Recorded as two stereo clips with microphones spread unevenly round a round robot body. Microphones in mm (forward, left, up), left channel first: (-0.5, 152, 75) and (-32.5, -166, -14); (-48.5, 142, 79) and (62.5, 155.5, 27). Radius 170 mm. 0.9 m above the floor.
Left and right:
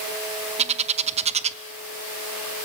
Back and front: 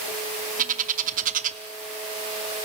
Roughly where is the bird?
Ahead.